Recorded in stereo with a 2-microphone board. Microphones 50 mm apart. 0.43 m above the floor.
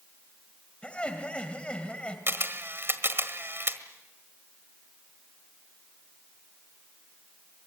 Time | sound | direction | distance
0.8 | laughter | 20° left (ahead or behind) | 2 m
2.3 | a camera shutter | 50° right (ahead or behind) | 1.5 m